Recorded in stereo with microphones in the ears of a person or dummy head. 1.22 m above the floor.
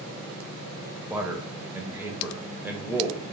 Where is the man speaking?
10° right (ahead or behind), 0.7 m.